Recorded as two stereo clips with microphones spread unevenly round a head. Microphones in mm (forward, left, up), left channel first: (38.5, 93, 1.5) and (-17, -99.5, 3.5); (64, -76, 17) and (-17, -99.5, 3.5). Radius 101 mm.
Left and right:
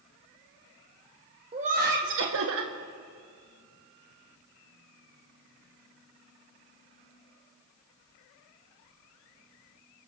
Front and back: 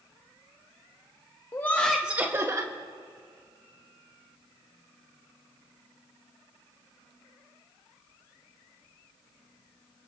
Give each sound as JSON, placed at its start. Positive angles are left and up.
{"t": 1.5, "sound": "laughter", "azimuth_deg": -45, "distance_m": 1.1}